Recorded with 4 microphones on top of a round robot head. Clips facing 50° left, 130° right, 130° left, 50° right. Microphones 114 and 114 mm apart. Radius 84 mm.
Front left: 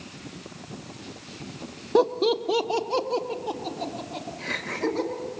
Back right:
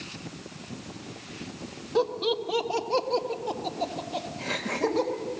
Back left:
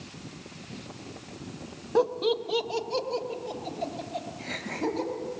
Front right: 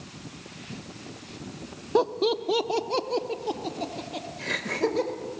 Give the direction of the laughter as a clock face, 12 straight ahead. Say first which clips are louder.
Front left 5 dB, front right 1 dB; 11 o'clock.